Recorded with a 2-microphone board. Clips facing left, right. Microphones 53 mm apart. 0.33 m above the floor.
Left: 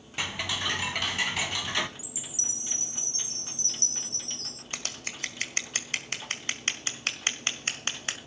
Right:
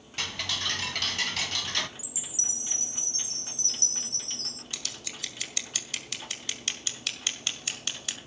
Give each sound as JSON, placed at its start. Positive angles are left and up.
{"t": 0.2, "sound": "ticking", "side_deg": 15, "distance_m": 0.9}
{"t": 2.0, "sound": "a chime", "side_deg": 35, "distance_m": 1.0}
{"t": 4.7, "sound": "scissors", "side_deg": 45, "distance_m": 1.7}